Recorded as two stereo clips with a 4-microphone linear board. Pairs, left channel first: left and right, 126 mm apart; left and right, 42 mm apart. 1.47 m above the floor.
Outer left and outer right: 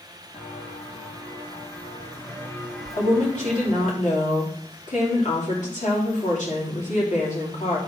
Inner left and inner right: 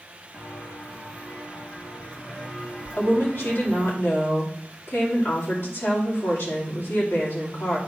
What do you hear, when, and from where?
0.3 s footsteps: 50° left (ahead or behind), 2.5 m; by 3.9 s 30° right (ahead or behind), 1.6 m
2.9 s a woman speaking: 75° left (ahead or behind), 2.5 m